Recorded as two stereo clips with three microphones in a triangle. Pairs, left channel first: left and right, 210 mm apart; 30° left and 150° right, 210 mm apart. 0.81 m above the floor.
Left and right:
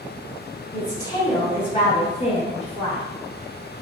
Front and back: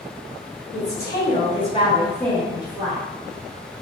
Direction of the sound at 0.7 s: 15° left.